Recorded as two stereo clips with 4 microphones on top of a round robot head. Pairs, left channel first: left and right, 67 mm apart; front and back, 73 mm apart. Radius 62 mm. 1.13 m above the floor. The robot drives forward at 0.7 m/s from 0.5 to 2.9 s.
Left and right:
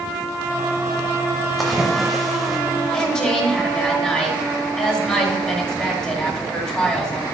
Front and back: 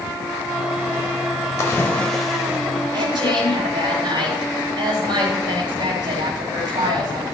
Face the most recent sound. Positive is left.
turn(degrees=175)